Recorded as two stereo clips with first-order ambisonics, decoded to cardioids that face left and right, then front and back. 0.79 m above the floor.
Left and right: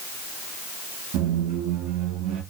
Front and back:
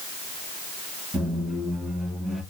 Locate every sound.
1.1 s a squeak: 95° right, 2.5 m